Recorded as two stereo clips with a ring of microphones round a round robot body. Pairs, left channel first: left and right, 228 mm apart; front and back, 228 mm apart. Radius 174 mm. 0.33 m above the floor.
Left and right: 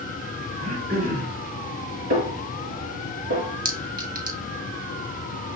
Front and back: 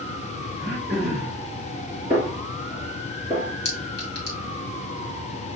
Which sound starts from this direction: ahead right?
A clink, at 3.6 s.